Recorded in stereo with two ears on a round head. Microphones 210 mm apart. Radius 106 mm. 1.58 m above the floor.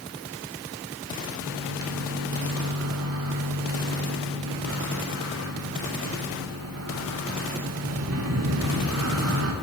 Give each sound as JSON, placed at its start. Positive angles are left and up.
{"t": 1.4, "sound": "a microwave", "side_deg": -60, "distance_m": 0.6}